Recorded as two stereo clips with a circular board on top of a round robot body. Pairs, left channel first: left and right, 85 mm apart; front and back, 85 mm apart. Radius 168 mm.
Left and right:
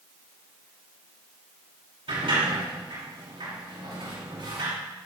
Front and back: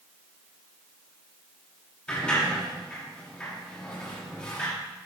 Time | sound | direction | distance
2.1 | a sliding door | 80° right | 5 m